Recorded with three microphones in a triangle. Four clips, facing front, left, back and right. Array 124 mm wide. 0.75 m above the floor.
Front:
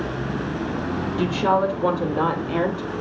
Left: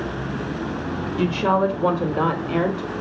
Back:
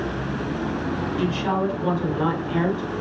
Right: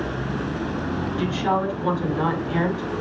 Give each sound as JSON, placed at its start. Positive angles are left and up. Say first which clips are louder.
{"t": 1.2, "sound": "a woman speaking", "louder": "left 4 dB, front 5 dB", "azimuth_deg": 50, "distance_m": 3.5}